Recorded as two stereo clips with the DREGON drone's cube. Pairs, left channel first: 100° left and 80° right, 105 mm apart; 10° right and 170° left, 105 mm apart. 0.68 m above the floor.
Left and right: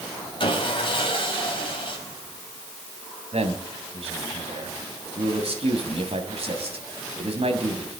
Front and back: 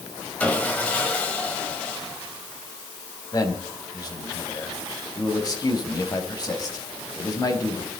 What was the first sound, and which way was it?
Sawing, 65° left.